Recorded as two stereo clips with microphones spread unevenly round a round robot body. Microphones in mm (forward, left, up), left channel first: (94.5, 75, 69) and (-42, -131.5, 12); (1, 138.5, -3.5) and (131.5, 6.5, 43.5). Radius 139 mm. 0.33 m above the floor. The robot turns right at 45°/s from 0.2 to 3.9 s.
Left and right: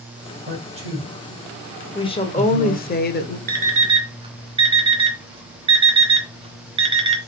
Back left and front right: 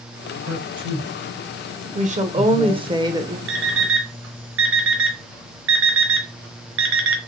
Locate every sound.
0.5 s a man speaking: 85° right, 2.5 m; by 3.0 s 25° left, 2.5 m
1.9 s a woman speaking: 20° right, 1.0 m; by 3.4 s 40° left, 1.0 m
3.5 s an alarm clock: 80° right, 1.0 m; by 7.2 s 65° right, 1.0 m